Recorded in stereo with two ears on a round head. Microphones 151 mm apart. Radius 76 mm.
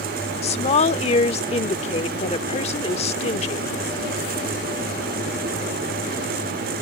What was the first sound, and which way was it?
A woman speaking, 40° left (ahead or behind).